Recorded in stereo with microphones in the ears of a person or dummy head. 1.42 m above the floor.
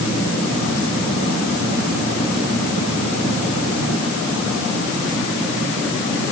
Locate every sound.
Only background noise.